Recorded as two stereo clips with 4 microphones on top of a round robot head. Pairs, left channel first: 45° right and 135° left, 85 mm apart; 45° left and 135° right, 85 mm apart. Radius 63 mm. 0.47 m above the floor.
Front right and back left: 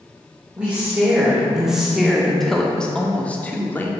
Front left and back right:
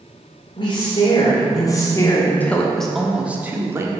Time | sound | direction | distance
0.6 | a woman speaking | 55° left | 2 m